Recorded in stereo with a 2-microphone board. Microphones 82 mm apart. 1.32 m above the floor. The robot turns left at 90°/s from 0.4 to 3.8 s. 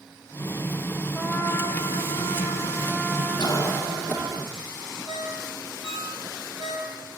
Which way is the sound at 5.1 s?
65° right (ahead or behind).